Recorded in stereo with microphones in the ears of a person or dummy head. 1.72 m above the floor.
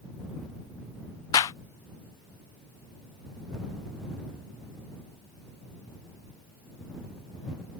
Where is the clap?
20° left (ahead or behind).